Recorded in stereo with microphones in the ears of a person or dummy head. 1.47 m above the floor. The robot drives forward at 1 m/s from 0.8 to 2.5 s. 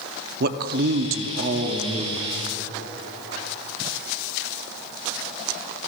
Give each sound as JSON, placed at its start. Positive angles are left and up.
{"t": 0.4, "sound": "a man speaking", "side_deg": -50, "distance_m": 0.7}